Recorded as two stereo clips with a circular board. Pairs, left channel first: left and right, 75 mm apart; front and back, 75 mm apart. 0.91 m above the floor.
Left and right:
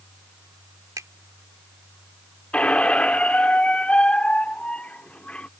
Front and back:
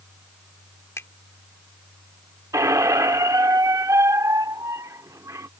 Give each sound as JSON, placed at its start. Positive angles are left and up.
{"t": 1.0, "sound": "a finger snap", "azimuth_deg": -55}
{"t": 2.5, "sound": "a squeak", "azimuth_deg": 160}